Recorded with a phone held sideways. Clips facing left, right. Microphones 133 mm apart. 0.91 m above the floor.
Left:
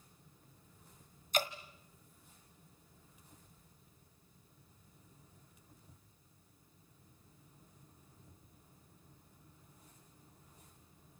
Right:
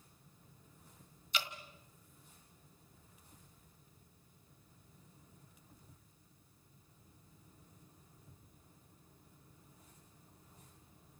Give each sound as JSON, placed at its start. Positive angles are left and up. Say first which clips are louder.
{"t": 1.3, "sound": "dripping", "louder": "left 7 dB", "side_deg": 45, "distance_m": 1.4}